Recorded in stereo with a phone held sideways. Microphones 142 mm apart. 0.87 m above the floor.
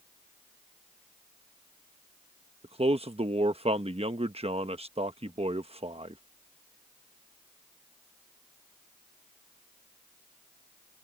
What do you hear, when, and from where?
2.6 s a man speaking: 45° right (ahead or behind)